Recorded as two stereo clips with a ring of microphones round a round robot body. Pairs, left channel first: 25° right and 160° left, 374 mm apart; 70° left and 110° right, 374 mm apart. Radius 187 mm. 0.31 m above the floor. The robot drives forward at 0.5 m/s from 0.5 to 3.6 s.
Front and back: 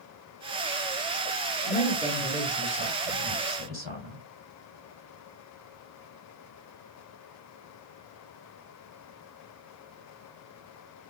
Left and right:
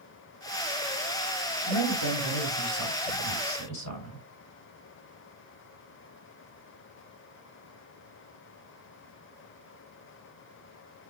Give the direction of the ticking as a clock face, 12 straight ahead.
I don't hear ticking.